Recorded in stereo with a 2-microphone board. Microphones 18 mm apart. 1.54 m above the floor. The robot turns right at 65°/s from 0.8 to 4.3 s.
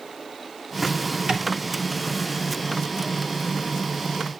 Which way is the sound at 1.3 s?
65° right (ahead or behind).